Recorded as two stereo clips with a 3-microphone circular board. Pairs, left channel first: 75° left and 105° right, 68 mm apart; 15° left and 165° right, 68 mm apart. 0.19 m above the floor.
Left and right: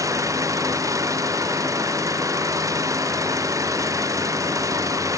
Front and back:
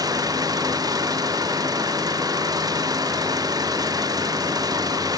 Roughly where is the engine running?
Behind right.